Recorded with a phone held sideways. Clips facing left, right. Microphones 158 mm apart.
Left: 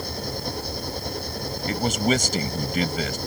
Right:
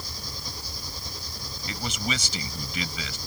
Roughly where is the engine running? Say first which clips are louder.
Left 11 dB; left.